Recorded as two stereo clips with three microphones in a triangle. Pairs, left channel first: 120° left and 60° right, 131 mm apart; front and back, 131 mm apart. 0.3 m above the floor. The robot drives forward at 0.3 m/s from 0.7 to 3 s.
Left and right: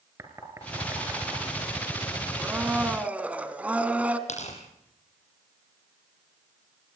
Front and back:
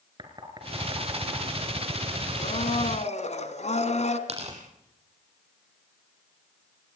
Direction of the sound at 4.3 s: 145° left.